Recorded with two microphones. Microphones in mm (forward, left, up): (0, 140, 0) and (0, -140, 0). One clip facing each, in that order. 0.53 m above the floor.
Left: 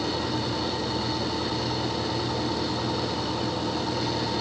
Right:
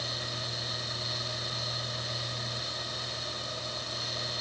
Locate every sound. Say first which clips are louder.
0.0 s an engine running: left 14 dB; 80° left